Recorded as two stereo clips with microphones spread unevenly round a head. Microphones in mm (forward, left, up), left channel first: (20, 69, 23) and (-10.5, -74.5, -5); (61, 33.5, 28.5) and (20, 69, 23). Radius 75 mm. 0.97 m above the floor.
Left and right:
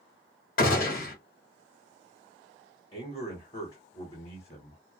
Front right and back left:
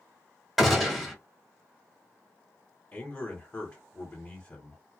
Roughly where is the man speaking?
Ahead.